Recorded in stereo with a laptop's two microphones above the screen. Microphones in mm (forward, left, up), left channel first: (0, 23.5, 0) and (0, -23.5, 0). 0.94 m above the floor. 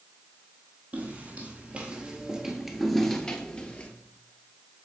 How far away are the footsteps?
About 1.5 m.